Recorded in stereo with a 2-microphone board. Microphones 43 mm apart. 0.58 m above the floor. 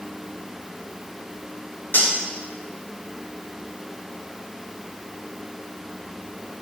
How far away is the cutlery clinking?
About 5.5 m.